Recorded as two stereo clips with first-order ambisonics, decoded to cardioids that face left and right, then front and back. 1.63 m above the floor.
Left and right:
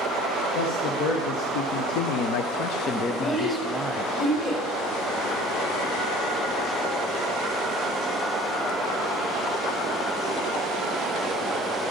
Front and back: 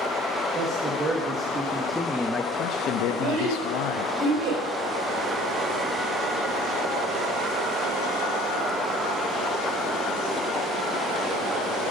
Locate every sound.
0.6 s a man speaking: 110° left, 2 m; by 4.1 s 15° right, 1.3 m
3.1 s a child speaking: 145° left, 5 m